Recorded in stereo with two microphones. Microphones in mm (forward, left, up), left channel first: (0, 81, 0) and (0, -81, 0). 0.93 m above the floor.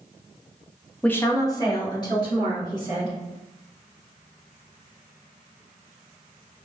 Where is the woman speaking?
5° left (ahead or behind), 0.6 m; by 3.1 s 30° left (ahead or behind), 3.5 m.